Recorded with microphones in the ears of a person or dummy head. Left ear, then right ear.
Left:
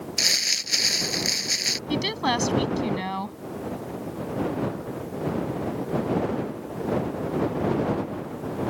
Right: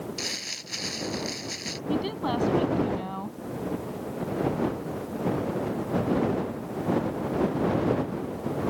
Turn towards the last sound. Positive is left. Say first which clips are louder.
# even
turn(degrees=60)  # may be behind; listen again after turning